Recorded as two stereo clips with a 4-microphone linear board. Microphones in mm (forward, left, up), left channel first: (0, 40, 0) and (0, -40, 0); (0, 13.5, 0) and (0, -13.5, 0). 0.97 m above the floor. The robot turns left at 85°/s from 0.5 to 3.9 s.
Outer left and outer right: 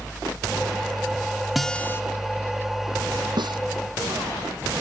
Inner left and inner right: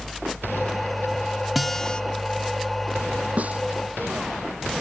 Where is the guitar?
175° right; by 2.0 s 145° left.